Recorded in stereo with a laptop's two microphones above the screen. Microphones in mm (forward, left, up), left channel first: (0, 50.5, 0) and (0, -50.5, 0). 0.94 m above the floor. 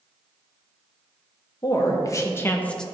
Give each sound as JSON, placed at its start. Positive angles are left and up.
{"t": 1.6, "sound": "a woman speaking", "side_deg": 40, "distance_m": 1.4}